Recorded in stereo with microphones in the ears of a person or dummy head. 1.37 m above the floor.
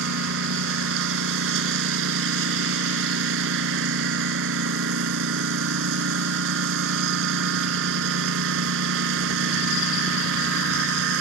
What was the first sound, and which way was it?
A lawn mower, 70° right (ahead or behind).